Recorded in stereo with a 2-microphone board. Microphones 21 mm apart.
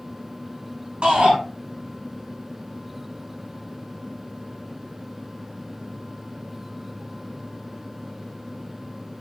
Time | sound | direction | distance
1.0 | a shout | 60° right (ahead or behind) | 7 m